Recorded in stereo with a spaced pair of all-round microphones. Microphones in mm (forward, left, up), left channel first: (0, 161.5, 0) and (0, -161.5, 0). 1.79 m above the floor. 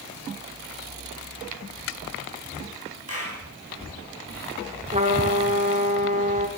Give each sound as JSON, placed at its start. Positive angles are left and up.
{"t": 3.1, "sound": "a clap", "side_deg": 45, "distance_m": 9.5}
{"t": 4.9, "sound": "a trumpet", "side_deg": -20, "distance_m": 4.5}